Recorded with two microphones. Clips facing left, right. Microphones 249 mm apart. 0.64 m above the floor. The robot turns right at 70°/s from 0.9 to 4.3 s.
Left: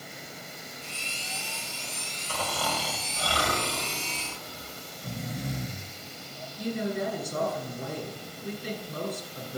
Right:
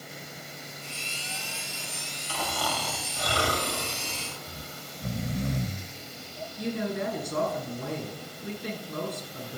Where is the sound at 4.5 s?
70° right (ahead or behind), 0.9 m.